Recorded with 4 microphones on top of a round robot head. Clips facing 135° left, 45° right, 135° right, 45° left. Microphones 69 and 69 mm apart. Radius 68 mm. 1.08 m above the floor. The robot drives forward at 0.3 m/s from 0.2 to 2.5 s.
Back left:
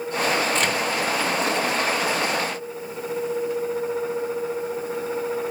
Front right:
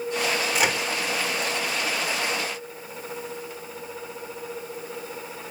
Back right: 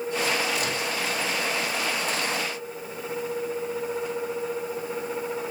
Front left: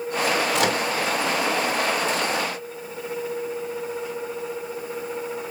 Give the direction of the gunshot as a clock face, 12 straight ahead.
I don't hear a gunshot.